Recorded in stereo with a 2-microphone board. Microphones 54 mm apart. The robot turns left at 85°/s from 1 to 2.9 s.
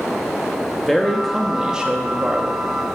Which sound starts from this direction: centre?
A man speaking, at 0.9 s.